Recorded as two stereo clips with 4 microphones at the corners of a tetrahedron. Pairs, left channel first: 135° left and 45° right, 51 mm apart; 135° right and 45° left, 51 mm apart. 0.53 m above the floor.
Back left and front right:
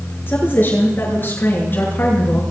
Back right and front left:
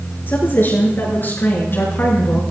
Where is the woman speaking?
175° right, 9 m; by 2.4 s straight behind, 6.5 m.